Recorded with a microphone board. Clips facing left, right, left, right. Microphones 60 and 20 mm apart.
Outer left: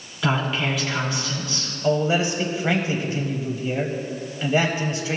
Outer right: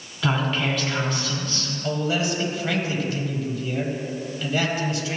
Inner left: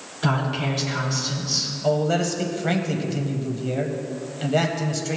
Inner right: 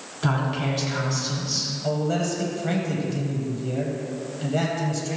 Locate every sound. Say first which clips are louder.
0.2 s a woman speaking: outer left 1 dB, inner left 1 dB; 5° left (ahead or behind), 2 m
1.8 s a man speaking: outer left 4 dB, inner left 5 dB; 25° left (ahead or behind), 1.1 m